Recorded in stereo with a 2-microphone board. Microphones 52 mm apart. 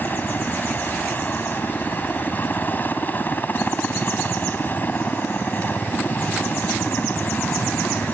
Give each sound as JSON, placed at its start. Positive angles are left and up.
{"t": 0.0, "sound": "a helicopter", "side_deg": 35}